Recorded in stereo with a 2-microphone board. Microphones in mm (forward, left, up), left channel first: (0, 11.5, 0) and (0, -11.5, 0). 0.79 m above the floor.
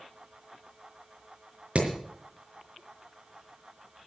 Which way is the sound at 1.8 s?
60° right (ahead or behind).